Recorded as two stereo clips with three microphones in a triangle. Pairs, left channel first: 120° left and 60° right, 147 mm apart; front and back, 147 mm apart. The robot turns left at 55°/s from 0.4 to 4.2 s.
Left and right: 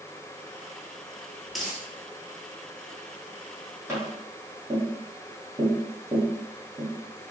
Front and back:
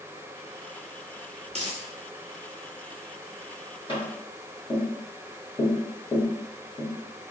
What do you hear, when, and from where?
1.5 s a dropped coin: 150° right, 0.7 m; by 1.9 s 165° right, 0.7 m
3.9 s tapping: 5° right, 1.3 m; by 6.9 s 20° right, 1.3 m